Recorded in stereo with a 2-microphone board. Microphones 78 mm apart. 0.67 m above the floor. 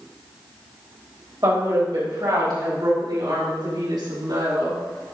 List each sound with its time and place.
1.4 s a woman speaking: 55° right (ahead or behind), 3.5 m; by 4.8 s 75° right (ahead or behind), 5.5 m